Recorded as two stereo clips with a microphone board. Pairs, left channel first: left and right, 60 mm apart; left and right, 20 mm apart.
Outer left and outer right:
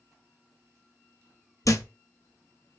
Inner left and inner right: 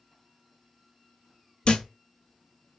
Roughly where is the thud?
Left.